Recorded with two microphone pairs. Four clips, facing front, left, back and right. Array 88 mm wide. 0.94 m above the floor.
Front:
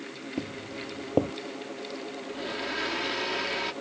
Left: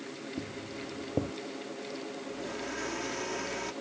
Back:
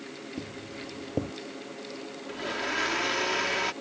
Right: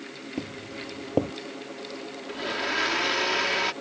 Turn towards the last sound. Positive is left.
turn(degrees=-115)